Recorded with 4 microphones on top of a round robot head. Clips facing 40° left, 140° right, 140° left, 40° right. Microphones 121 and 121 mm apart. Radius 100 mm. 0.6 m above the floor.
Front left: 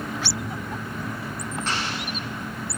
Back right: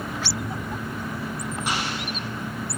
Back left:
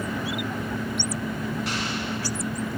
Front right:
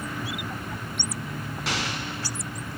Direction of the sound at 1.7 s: 60° right.